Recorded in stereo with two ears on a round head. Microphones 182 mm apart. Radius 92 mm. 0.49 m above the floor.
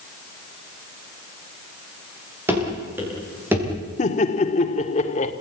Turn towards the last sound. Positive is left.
turn(degrees=35)  # may be behind; listen again after turning